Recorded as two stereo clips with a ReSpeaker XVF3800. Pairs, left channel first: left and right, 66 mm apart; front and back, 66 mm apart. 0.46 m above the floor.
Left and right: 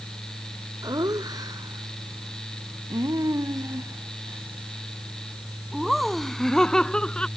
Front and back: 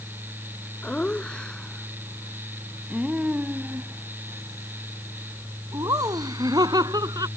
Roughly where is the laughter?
Right.